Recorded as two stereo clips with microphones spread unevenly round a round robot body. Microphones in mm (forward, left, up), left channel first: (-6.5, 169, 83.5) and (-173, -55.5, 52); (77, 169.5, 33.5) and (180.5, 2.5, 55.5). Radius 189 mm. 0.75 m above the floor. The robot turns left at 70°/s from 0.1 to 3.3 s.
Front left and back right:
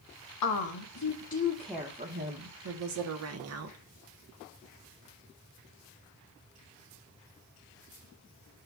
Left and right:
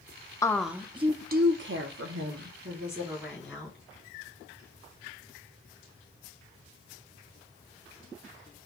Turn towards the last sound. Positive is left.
turn(degrees=-150)